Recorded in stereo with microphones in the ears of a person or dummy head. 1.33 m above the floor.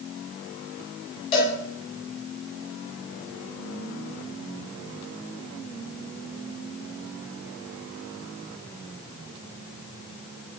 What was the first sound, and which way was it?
A cowbell, 30° left (ahead or behind).